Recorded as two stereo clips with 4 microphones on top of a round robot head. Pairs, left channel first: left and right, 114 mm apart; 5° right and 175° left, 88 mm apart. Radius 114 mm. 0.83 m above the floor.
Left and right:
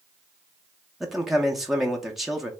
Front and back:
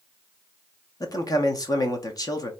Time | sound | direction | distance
1.0 | a man speaking | 5° right | 1.0 m